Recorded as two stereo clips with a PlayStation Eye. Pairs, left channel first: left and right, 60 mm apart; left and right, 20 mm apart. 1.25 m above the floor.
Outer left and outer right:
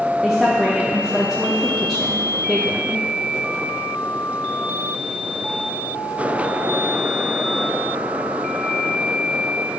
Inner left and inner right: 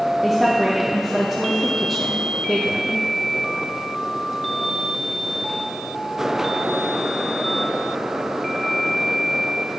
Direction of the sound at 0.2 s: Centre (ahead or behind).